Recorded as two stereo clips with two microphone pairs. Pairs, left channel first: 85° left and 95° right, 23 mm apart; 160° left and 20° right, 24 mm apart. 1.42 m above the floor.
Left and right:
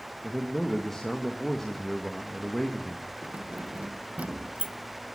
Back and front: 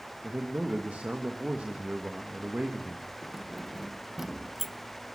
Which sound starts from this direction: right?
Keys jangling, at 3.2 s.